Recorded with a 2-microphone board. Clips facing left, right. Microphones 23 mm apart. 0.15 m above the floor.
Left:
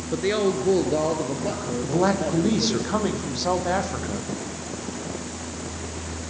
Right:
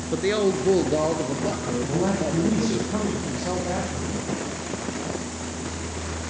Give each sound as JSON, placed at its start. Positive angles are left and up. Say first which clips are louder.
{"t": 0.1, "sound": "a woman speaking", "louder": "even", "side_deg": 0, "distance_m": 1.9}
{"t": 1.8, "sound": "a man speaking", "louder": "left 4 dB", "side_deg": 65, "distance_m": 5.5}